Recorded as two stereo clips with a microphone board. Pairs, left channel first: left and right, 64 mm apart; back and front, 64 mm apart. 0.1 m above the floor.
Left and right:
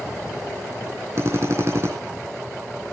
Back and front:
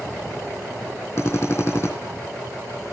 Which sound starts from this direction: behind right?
A drill, at 1.2 s.